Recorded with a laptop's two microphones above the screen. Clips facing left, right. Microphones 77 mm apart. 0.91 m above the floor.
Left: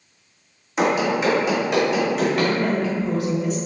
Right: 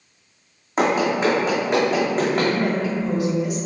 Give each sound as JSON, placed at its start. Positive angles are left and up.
{"t": 0.8, "sound": "running footsteps", "side_deg": -40, "distance_m": 1.6}
{"t": 2.3, "sound": "a woman speaking", "side_deg": -15, "distance_m": 1.4}